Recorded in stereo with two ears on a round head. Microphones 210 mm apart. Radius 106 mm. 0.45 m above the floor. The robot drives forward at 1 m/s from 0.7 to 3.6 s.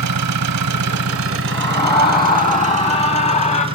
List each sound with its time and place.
0.0 s an engine running: 80° right, 1.4 m; by 3.8 s 25° right (ahead or behind), 3 m
1.5 s a scream: 15° left (ahead or behind), 5 m; by 3.7 s 30° left (ahead or behind), 3 m